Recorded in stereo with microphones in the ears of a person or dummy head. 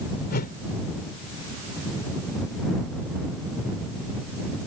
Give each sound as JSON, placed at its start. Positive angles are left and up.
{"t": 0.3, "sound": "a whoosh", "side_deg": 45}